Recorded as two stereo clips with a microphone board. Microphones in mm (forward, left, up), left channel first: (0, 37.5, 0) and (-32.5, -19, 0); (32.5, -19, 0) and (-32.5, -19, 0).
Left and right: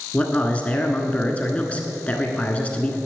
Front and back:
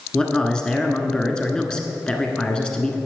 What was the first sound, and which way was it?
A man speaking, 50° left.